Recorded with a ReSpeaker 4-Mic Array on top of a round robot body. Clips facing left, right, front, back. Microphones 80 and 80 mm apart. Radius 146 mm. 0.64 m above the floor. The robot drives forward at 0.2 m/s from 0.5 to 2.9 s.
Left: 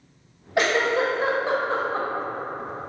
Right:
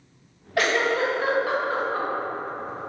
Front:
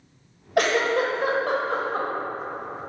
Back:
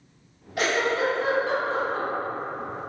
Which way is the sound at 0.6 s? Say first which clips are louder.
Left 1 dB, front 3 dB; 20° left.